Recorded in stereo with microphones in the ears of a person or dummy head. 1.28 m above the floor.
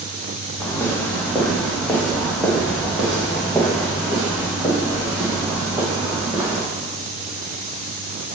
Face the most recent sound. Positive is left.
turn(degrees=-15)  # may be behind; listen again after turning